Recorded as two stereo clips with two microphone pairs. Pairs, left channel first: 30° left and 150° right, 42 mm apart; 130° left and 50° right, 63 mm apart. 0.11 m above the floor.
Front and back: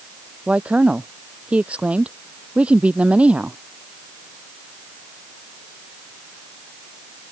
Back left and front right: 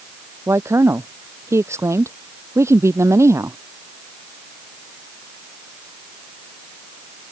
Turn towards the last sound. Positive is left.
turn(degrees=-90)